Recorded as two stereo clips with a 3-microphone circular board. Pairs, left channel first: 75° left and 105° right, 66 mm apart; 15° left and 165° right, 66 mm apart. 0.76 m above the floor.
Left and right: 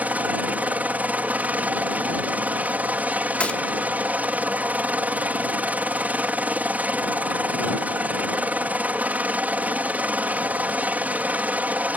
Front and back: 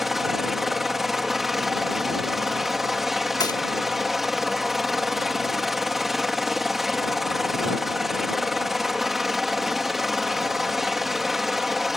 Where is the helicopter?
85° right.